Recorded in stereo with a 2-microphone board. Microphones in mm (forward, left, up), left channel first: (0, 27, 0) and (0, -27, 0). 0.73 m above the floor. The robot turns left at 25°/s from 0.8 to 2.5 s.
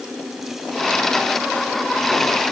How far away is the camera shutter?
I don't hear a camera shutter.